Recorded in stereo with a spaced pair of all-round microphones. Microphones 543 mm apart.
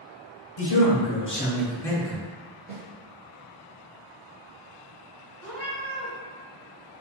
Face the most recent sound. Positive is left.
turn(degrees=-25)  # may be behind; listen again after turning